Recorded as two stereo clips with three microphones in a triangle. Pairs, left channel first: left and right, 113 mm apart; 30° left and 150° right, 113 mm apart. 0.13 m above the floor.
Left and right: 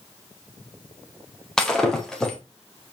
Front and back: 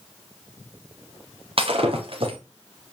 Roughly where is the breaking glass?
Behind.